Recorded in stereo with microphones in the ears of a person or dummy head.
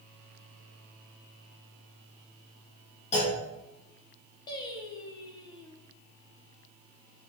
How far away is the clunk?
About 3 m.